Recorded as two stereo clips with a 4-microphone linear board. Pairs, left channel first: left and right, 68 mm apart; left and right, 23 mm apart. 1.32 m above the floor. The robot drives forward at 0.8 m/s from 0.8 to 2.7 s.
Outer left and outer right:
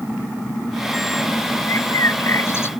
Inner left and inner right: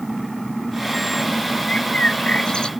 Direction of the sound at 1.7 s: 50° left (ahead or behind).